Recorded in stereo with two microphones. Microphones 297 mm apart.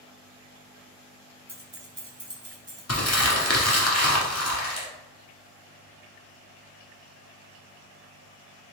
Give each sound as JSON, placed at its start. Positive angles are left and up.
{"t": 1.5, "sound": "keys jangling", "side_deg": -30, "distance_m": 0.9}
{"t": 2.9, "sound": "crumpling", "side_deg": 55, "distance_m": 1.3}